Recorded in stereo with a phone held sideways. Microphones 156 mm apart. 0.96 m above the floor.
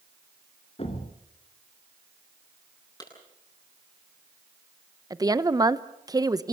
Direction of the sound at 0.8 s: 40° left (ahead or behind).